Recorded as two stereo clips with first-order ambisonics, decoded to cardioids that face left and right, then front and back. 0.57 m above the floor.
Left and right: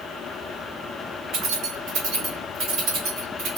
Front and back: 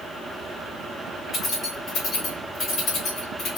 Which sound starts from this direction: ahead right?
Keys jangling, at 1.3 s.